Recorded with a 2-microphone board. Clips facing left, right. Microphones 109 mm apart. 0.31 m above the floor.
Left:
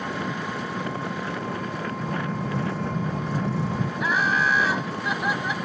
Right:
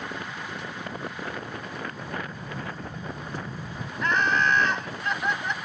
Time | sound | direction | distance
0.0 | an engine running | 75° left (ahead or behind) | ?
2.0 | an explosion | 60° left (ahead or behind) | ?
4.0 | laughter | 5° left (ahead or behind) | ?